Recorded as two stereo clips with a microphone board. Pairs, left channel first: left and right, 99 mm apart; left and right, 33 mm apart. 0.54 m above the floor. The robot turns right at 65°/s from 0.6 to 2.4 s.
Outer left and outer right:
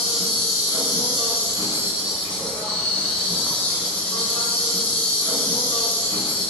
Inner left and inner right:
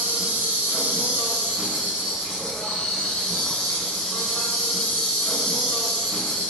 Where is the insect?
105° right, 1.1 m; by 6.5 s 10° left, 1.1 m.